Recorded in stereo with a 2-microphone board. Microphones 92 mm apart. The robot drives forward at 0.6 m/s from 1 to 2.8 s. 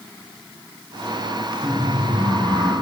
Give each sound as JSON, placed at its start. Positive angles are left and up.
{"t": 1.6, "sound": "laughter", "side_deg": 20, "distance_m": 3.0}